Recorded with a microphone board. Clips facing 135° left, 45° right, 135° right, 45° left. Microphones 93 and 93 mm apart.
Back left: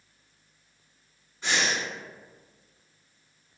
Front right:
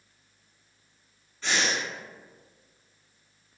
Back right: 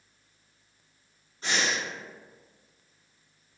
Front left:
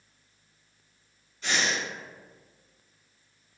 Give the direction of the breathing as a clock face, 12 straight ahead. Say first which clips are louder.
Even, even; 5 o'clock.